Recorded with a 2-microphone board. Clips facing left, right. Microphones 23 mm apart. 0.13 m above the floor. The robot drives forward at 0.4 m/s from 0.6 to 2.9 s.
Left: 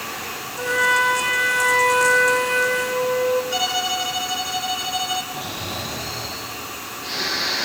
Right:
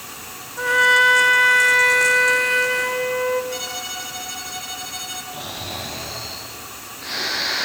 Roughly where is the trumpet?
Right.